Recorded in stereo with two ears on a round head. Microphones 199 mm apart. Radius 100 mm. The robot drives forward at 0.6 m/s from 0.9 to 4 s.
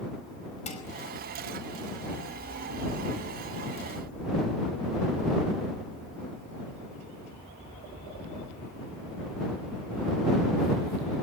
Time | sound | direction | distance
0.7 | dishes clattering | 35° left (ahead or behind) | 5 m